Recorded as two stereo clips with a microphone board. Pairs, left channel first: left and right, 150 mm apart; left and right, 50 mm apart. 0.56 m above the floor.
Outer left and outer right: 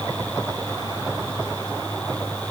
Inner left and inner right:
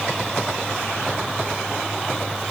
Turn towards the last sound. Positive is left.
No sound to turn to.